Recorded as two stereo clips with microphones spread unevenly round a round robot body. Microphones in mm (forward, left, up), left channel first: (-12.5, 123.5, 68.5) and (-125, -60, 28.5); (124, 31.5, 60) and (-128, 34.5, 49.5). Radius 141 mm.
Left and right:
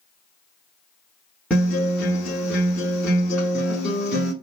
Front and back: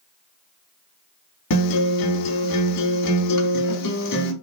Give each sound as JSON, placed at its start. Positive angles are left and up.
{"t": 1.5, "sound": "a guitar", "azimuth_deg": -30, "distance_m": 0.7}